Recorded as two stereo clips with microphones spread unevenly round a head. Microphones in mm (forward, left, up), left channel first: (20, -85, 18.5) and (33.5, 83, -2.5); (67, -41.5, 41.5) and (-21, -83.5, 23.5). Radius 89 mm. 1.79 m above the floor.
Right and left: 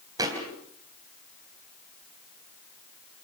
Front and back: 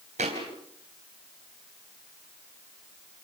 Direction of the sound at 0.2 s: 160° left.